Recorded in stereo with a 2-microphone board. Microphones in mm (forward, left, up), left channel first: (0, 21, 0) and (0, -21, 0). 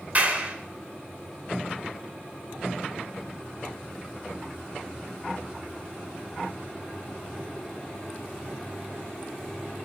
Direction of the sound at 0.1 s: 45° right (ahead or behind).